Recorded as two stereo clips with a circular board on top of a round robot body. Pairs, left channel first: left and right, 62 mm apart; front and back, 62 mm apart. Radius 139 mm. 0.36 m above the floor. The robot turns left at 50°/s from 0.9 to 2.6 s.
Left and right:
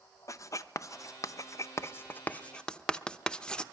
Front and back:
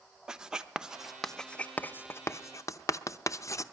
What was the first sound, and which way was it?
Writing, 105° left.